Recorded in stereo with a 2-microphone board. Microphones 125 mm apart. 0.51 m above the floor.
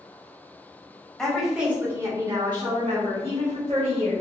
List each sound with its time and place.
1.2 s a woman speaking: 5° left (ahead or behind), 1.2 m; by 4.2 s 60° right (ahead or behind), 2.0 m